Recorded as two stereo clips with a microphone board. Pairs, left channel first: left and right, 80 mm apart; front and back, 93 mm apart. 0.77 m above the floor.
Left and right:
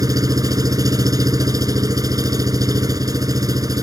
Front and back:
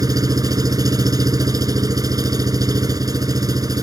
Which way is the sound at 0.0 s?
130° right.